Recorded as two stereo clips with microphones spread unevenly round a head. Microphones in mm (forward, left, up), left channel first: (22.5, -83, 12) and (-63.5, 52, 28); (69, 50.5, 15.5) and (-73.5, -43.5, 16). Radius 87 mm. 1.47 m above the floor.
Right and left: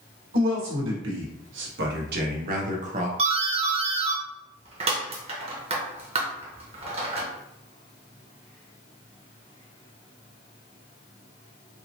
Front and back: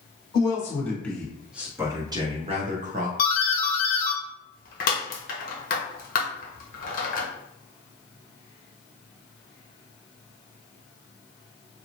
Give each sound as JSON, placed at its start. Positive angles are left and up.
{"t": 0.3, "sound": "a man speaking", "azimuth_deg": 105, "distance_m": 1.4}
{"t": 3.2, "sound": "a doorbell", "azimuth_deg": 65, "distance_m": 0.8}